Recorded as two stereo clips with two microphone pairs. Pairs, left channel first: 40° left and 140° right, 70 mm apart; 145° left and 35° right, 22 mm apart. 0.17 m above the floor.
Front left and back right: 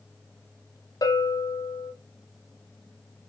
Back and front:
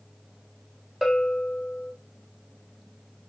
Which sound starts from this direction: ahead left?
A bell, at 1.0 s.